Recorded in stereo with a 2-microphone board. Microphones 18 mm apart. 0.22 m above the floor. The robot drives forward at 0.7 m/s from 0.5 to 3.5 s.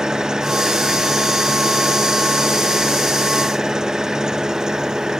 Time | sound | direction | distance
0.0 | an engine running | 45° right (ahead or behind) | ?